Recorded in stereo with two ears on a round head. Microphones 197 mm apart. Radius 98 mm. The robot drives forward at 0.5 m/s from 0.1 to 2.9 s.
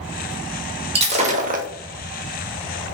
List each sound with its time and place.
0.9 s breaking glass: 30° right (ahead or behind), 0.8 m; by 1.7 s 40° right (ahead or behind), 0.6 m